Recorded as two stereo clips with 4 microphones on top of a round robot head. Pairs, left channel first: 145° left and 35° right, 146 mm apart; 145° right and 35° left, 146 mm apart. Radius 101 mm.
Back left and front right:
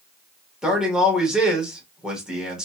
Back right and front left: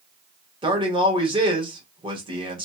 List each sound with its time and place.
0.6 s a man speaking: 45° left, 1.3 m